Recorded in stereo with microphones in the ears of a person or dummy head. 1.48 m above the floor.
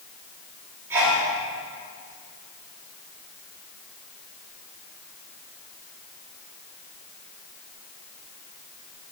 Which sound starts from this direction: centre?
A sneeze, at 0.9 s.